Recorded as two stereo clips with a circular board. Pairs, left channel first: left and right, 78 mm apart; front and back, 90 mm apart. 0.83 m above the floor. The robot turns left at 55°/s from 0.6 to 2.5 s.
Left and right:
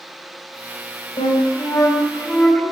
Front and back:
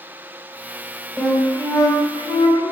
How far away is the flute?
About 5 m.